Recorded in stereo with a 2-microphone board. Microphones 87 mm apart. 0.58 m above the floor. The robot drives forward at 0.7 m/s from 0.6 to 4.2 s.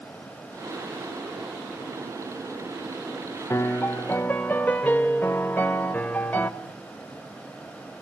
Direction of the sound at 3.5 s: 35° left (ahead or behind).